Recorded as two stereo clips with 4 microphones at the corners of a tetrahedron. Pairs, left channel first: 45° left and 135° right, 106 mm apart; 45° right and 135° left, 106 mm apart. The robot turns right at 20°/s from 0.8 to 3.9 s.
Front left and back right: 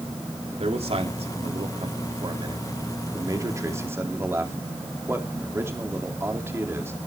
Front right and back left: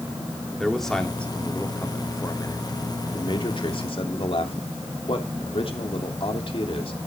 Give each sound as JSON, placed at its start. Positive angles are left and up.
{"t": 0.6, "sound": "a man speaking", "azimuth_deg": -130, "distance_m": 2.5}